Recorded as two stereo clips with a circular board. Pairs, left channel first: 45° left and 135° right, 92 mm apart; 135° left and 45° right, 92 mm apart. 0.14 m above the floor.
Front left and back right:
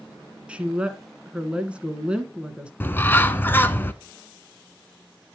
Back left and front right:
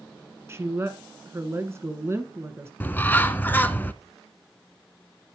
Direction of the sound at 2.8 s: 90° left.